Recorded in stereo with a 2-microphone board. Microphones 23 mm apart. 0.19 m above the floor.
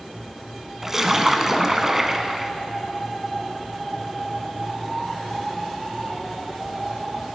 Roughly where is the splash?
Centre.